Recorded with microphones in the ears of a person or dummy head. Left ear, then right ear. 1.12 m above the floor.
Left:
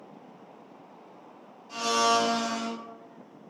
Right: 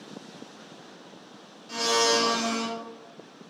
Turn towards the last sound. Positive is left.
turn(degrees=-80)